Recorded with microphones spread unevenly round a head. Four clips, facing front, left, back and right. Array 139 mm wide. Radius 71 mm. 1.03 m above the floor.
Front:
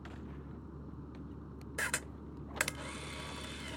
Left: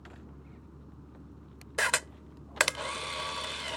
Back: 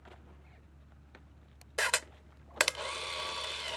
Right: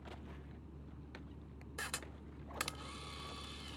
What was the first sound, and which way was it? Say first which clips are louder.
A vehicle: left 2 dB, front 9 dB; 10° left.